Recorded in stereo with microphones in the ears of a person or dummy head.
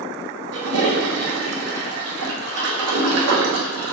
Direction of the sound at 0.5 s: 75° right (ahead or behind).